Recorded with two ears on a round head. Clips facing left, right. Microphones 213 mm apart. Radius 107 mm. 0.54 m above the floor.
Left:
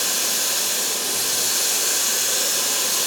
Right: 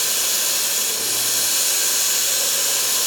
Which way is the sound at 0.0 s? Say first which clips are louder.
Left 2 dB; 50° right (ahead or behind).